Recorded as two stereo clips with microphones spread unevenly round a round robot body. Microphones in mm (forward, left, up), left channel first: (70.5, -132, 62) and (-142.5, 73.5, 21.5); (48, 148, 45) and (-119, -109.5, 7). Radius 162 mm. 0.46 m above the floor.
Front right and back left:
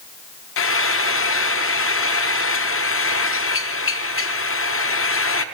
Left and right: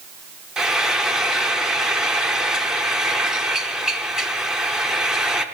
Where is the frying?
45° right, 0.8 m.